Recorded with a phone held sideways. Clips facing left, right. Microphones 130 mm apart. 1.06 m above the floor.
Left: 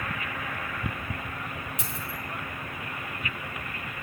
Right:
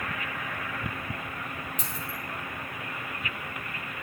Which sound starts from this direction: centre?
A dropped coin, at 1.8 s.